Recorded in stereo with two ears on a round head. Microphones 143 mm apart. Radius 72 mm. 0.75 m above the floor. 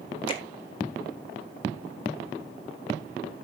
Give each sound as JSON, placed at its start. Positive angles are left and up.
{"t": 0.3, "sound": "a finger snap", "side_deg": 30, "distance_m": 1.8}